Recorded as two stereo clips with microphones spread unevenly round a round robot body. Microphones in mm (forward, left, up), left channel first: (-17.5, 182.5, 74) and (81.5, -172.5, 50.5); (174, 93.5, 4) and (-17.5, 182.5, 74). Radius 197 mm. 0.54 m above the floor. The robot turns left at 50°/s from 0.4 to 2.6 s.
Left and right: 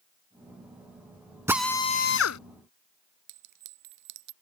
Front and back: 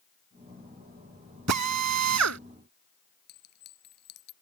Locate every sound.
1.5 s a drill: 160° right; by 2.4 s 155° left
3.3 s a clink: 85° right